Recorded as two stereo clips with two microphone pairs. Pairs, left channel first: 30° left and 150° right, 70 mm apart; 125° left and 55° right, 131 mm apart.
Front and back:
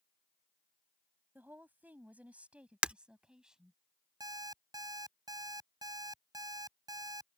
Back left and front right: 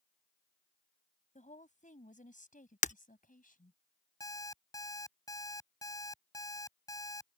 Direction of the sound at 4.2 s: 175° right.